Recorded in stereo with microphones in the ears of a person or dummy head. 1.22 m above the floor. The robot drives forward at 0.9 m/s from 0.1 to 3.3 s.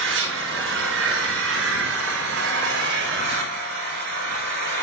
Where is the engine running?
75° right (ahead or behind), 6 m.